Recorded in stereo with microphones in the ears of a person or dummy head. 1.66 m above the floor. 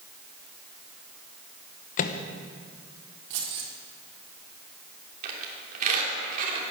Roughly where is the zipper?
No zipper in this recording.